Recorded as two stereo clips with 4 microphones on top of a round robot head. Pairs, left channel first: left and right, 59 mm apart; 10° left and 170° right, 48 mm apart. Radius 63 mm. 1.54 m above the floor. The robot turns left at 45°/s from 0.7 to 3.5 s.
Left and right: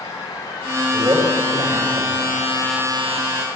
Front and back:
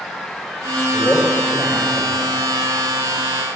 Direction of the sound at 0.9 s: 45° right.